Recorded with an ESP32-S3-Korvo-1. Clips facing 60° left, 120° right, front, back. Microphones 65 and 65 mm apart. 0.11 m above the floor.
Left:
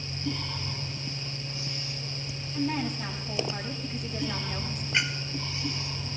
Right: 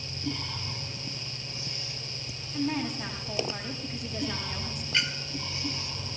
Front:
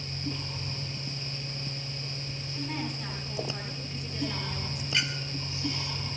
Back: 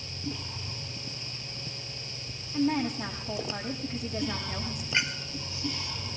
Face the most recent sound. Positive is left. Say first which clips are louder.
# left 2 dB, back 2 dB
turn(degrees=125)